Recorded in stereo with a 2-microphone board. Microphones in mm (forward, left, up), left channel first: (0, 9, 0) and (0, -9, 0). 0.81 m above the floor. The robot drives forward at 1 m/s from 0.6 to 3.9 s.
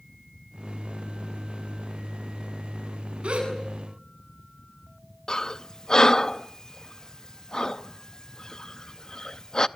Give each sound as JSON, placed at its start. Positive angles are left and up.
{"t": 3.2, "sound": "a gasp", "side_deg": -70, "distance_m": 8.0}
{"t": 5.3, "sound": "breathing", "side_deg": 30, "distance_m": 0.5}